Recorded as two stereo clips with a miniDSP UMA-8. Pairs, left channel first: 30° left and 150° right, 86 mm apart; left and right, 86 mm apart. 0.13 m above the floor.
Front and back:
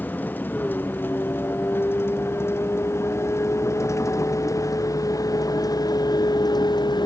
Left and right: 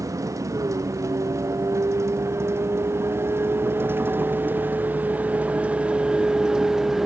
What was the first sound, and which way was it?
A vehicle, 40° right.